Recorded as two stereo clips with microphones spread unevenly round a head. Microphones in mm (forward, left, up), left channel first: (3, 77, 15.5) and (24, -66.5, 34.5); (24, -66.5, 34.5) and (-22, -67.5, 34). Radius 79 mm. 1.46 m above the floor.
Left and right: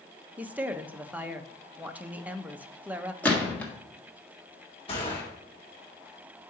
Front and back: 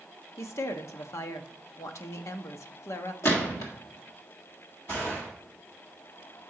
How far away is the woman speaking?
About 0.7 m.